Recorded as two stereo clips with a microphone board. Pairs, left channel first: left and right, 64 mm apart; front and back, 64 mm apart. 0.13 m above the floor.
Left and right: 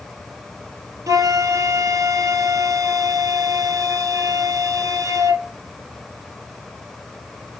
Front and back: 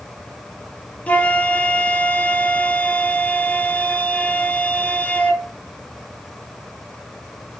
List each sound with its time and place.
1.1 s a flute: 70° right, 0.7 m